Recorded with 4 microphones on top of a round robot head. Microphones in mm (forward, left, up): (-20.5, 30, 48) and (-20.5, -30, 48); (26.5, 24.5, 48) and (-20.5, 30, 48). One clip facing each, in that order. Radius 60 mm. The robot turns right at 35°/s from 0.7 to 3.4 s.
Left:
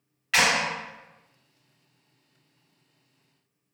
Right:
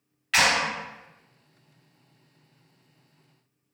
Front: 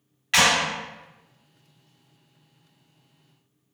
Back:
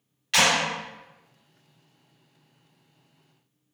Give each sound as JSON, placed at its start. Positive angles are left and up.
{"t": 0.3, "sound": "a clap", "azimuth_deg": 10, "distance_m": 1.2}